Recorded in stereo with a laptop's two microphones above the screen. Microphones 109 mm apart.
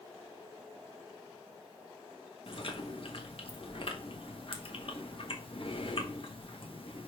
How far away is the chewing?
About 1.3 m.